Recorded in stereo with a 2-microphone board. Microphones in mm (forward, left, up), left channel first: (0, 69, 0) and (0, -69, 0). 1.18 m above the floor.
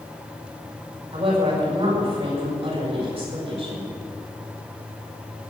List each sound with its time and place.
1.1 s a woman speaking: 45° right (ahead or behind), 6.5 m